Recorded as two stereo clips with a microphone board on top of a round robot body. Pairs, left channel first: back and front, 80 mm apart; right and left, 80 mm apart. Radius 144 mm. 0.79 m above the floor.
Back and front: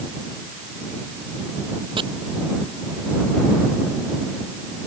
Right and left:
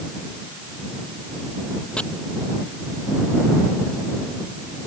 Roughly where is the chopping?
Ahead.